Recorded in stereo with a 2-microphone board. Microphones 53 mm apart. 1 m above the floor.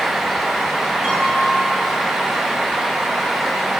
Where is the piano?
15° right (ahead or behind), 9 m.